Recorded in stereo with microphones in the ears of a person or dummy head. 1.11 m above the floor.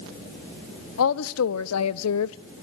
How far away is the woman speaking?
About 1.5 m.